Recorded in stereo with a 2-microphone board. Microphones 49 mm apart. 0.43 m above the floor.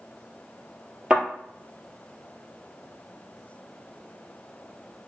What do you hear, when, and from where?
1.1 s a thud: 20° right (ahead or behind), 2 m